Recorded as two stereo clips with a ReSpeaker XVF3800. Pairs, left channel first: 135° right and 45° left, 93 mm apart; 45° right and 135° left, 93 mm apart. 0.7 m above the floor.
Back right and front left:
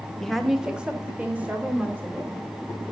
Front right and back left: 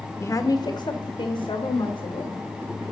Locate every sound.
0.2 s a woman speaking: 55° right, 0.7 m; by 2.4 s 25° right, 2.5 m